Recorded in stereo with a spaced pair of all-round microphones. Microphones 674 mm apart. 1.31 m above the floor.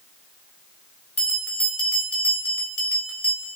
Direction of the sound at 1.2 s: 55° left (ahead or behind).